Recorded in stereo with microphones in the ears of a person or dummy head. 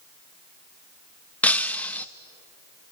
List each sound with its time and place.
1.4 s breaking glass: 5° left (ahead or behind), 0.5 m